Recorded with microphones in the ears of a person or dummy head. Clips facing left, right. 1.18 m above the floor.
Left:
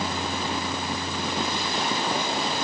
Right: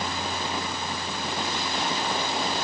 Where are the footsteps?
I don't hear footsteps.